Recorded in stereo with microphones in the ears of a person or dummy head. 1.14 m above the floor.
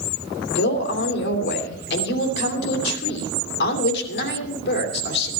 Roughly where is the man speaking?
Left.